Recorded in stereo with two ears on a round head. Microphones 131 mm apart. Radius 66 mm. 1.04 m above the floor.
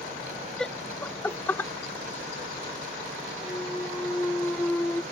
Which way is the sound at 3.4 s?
10° left (ahead or behind).